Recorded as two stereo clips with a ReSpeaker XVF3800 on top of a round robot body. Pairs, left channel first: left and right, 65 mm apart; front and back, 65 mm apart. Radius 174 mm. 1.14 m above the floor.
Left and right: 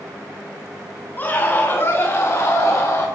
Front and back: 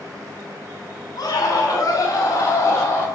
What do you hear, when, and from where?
1.2 s a scream: 30° left, 4 m; by 3.1 s 50° left, 4.5 m